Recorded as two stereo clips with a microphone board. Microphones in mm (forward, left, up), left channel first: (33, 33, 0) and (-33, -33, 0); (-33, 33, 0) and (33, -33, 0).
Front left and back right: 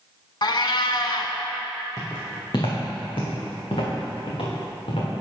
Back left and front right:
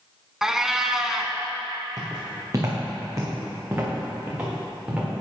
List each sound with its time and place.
0.4 s a cat meowing: 40° left, 0.6 m
2.0 s footsteps: straight ahead, 2 m; by 5.1 s 35° left, 3 m